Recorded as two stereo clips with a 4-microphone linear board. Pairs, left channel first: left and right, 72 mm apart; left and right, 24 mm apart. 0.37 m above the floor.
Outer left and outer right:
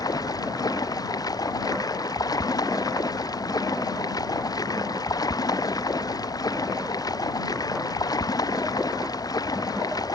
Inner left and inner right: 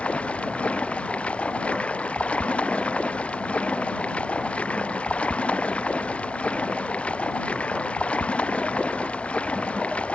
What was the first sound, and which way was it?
Running water, 60° left (ahead or behind).